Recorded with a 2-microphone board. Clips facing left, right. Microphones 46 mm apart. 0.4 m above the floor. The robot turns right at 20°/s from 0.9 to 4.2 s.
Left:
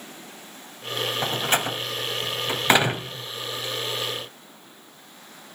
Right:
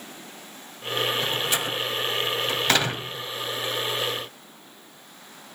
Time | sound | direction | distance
1.2 | a door slam | 45° left (ahead or behind) | 1.9 m